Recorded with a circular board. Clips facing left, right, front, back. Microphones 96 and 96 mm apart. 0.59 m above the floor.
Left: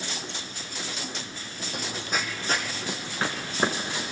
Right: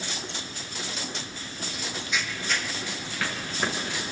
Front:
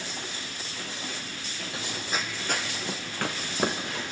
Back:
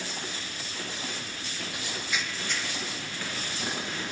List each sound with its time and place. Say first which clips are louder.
1.7 s running footsteps: left 2 dB, front 2 dB; 60° left, 1.2 m; by 4.0 s 25° left, 4 m